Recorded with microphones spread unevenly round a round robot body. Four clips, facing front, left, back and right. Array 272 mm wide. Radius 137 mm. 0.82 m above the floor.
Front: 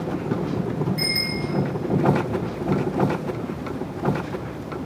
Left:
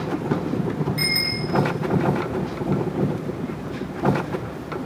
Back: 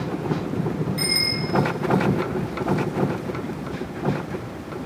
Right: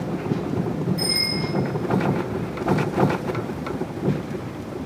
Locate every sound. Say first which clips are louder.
1.0 s a bicycle bell: right 1 dB, even; 105° left, 9.5 m